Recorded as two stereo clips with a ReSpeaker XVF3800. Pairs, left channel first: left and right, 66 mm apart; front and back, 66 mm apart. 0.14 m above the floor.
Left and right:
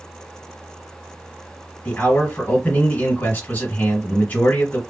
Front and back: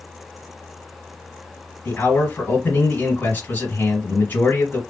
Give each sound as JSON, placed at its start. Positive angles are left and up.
{"t": 1.9, "sound": "a man speaking", "azimuth_deg": 40, "distance_m": 2.0}